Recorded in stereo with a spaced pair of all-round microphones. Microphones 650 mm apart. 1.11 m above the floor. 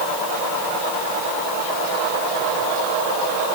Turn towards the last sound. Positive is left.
No sound to turn to.